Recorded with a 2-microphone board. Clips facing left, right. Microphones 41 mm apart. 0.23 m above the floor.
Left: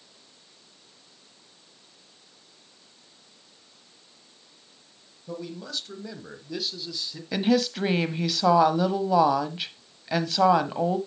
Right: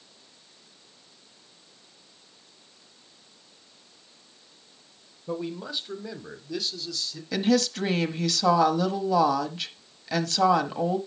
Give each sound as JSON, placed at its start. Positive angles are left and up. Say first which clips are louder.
{"t": 5.3, "sound": "a man speaking", "louder": "right 4 dB", "side_deg": -30, "distance_m": 1.2}
{"t": 7.3, "sound": "a woman speaking", "louder": "even", "side_deg": 15, "distance_m": 0.9}